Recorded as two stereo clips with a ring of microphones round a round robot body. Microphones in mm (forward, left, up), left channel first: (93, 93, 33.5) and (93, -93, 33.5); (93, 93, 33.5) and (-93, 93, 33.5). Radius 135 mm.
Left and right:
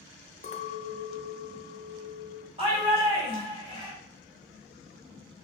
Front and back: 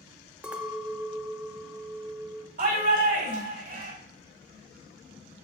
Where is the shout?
145° right, 2 m.